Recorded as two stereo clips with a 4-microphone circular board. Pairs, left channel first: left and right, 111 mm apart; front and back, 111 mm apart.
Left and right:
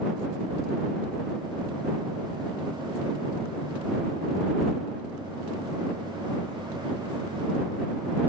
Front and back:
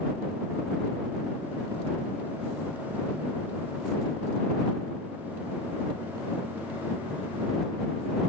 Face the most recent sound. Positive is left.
No sound to turn to.